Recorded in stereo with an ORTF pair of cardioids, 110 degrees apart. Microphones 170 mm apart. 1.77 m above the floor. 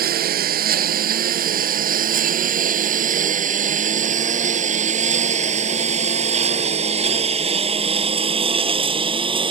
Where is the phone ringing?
I don't hear a phone ringing.